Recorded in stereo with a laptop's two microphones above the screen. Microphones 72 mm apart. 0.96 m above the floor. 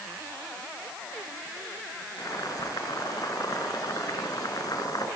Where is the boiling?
60° left (ahead or behind), 7 m.